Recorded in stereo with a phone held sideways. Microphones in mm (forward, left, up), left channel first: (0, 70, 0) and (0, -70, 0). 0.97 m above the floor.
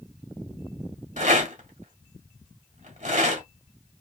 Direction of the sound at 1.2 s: 60° right (ahead or behind).